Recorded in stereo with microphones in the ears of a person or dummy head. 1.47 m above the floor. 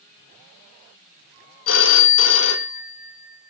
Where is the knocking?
No knocking in this recording.